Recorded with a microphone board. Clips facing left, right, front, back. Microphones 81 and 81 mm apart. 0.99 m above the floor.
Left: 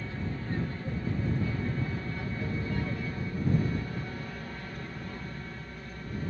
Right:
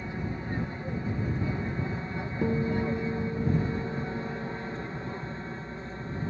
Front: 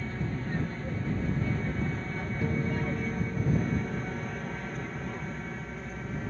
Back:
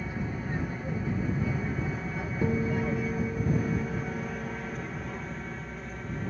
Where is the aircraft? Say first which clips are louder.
Right 2 dB, even; 120° right; by 6.3 s 90° right.